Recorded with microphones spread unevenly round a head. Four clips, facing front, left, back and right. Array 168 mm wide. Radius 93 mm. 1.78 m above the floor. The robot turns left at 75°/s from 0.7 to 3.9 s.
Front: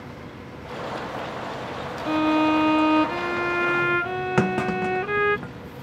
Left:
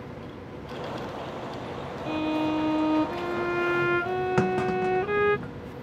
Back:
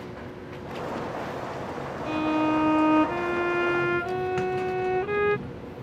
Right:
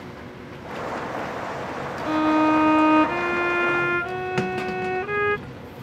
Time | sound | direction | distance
2.1 | a violin | 65° right | ?
4.4 | a clunk | straight ahead | ?